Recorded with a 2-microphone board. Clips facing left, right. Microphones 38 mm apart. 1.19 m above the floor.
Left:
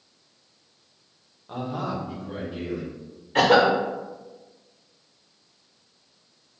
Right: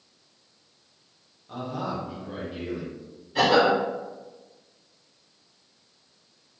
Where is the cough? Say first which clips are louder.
Left 2 dB; 55° left (ahead or behind), 0.6 m.